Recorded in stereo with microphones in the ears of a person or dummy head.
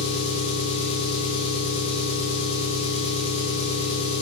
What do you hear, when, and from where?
0.0 s an engine running: 25° left (ahead or behind), 1.1 m